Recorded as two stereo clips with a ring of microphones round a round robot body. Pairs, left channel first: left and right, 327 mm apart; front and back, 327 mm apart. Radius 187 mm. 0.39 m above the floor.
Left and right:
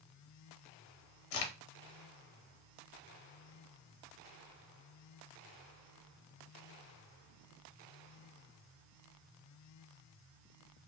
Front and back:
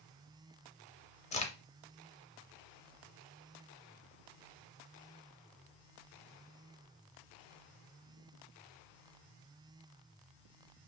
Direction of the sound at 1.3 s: 70° left.